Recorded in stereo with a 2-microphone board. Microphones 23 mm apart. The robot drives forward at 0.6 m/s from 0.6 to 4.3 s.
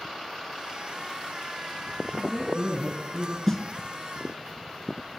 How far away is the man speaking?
About 7 m.